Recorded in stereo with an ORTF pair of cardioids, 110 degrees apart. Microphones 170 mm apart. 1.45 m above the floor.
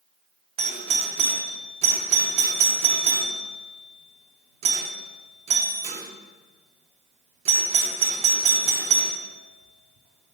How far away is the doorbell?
About 0.5 m.